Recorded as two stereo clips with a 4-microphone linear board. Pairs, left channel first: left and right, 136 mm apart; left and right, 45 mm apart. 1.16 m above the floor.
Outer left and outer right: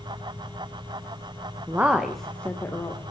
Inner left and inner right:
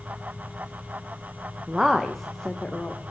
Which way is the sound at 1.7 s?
15° right (ahead or behind).